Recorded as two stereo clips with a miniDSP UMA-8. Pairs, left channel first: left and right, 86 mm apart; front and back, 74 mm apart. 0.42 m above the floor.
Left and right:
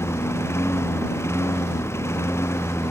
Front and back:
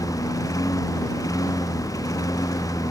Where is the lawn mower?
35° left.